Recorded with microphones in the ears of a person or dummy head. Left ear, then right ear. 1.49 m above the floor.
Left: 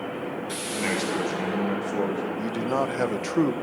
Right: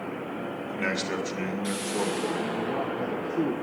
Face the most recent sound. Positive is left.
turn(degrees=55)  # may be behind; listen again after turning